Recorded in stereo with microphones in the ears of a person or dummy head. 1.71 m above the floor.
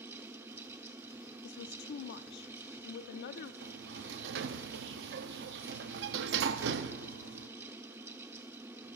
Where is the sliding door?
65° right (ahead or behind), 0.7 m.